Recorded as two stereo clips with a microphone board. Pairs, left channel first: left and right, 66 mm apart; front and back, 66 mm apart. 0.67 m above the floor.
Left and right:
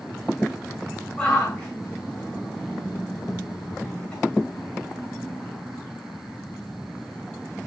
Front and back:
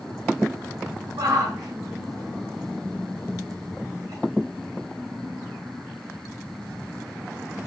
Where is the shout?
165° left, 7 m.